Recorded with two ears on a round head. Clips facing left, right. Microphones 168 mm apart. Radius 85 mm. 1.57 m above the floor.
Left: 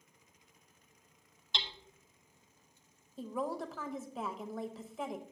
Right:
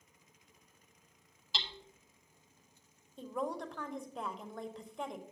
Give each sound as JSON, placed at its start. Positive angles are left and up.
{"t": 1.5, "sound": "hammering", "side_deg": 0, "distance_m": 0.8}
{"t": 3.2, "sound": "a woman speaking", "side_deg": 0, "distance_m": 0.6}